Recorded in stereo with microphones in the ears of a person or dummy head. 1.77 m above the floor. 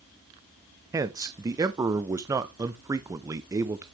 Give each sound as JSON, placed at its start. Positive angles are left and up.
{"t": 0.9, "sound": "a man speaking", "side_deg": -20, "distance_m": 0.6}